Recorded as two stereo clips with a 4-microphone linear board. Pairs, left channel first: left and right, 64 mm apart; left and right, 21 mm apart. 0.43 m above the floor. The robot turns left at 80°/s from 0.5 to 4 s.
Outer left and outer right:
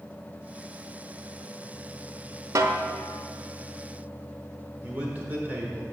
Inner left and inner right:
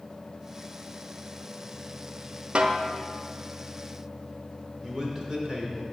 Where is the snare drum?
60° right (ahead or behind), 0.6 m; by 2.8 s 55° right (ahead or behind), 0.6 m.